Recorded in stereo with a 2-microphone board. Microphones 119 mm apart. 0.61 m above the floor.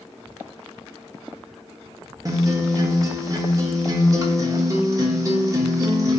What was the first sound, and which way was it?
A guitar, 30° right (ahead or behind).